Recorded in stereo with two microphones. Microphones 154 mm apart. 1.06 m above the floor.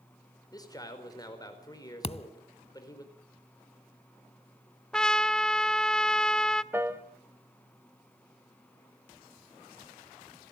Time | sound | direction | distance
0.5 | a man speaking | 25° left (ahead or behind) | 5 m
2.0 | a thud | 40° left (ahead or behind) | 0.7 m
4.9 | a trumpet | 5° left (ahead or behind) | 0.6 m
6.7 | a piano | 15° right (ahead or behind) | 1.5 m